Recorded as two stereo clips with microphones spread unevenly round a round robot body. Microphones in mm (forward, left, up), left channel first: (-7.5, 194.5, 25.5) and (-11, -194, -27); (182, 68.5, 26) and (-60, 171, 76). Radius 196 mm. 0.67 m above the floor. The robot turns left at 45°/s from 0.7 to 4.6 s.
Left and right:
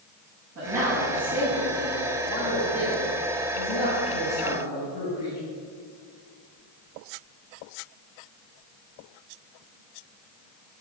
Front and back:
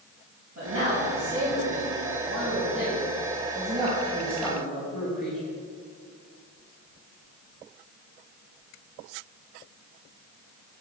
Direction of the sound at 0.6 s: 145° right.